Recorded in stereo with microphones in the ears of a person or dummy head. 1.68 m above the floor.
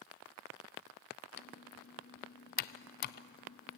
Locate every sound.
1.4 s typing on a keyboard: 45° left (ahead or behind), 0.5 m